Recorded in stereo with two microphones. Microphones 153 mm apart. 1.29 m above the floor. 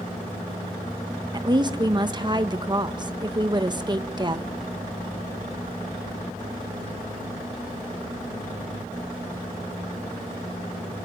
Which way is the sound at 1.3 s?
30° right (ahead or behind).